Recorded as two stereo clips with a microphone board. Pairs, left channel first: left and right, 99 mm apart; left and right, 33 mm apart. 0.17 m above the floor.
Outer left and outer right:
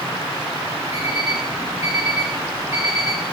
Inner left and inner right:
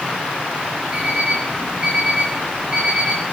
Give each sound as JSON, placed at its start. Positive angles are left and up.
{"t": 0.9, "sound": "an alarm clock", "side_deg": -30, "distance_m": 8.5}